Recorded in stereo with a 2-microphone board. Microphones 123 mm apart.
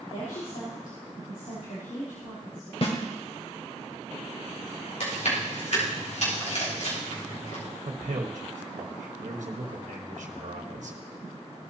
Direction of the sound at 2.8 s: 50° left (ahead or behind).